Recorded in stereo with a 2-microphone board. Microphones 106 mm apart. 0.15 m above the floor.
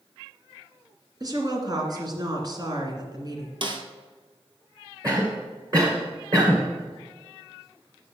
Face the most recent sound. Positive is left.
turn(degrees=-30)  # may be behind; listen again after turning